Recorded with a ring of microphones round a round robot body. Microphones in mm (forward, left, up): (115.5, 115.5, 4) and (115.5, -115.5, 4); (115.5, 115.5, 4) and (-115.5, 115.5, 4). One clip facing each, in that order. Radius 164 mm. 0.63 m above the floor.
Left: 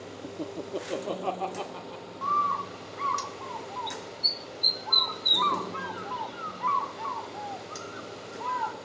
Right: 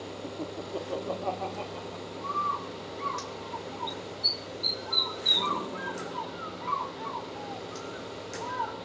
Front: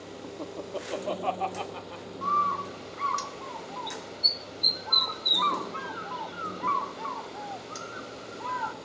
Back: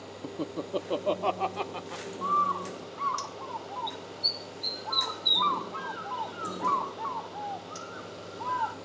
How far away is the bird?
About 2.5 m.